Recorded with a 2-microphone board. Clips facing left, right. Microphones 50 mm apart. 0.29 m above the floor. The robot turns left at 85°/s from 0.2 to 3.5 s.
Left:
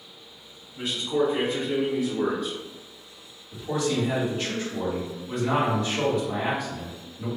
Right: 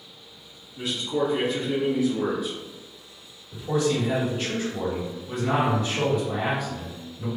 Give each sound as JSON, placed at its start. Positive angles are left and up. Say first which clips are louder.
{"t": 0.8, "sound": "a man speaking", "louder": "left 1 dB", "side_deg": 25, "distance_m": 1.0}
{"t": 3.5, "sound": "a man speaking", "louder": "right 2 dB", "side_deg": -5, "distance_m": 1.8}